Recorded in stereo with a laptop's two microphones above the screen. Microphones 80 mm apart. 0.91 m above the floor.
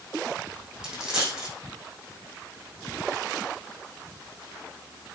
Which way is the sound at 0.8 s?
10° right (ahead or behind).